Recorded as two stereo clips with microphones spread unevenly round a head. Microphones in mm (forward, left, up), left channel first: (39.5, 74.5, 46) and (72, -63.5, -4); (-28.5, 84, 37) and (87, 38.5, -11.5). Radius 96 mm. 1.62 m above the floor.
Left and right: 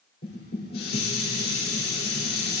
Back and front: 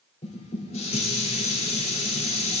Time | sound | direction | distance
0.2 | dishes clattering | 130° left | 4 m